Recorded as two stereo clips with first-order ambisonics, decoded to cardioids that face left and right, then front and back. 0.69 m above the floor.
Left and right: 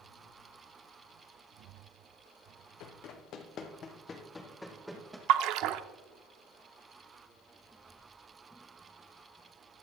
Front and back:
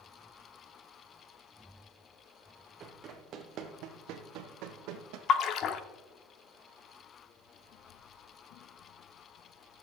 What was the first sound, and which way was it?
Running footsteps, 115° left.